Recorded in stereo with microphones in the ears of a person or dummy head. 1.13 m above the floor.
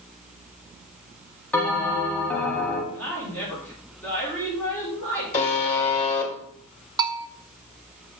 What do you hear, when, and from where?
1.5 s a bell: 10° left (ahead or behind), 1.0 m
2.9 s a woman speaking: 15° left (ahead or behind), 3 m
5.3 s a buzzer: 30° left (ahead or behind), 2.0 m
7.0 s a bell: 20° right (ahead or behind), 0.6 m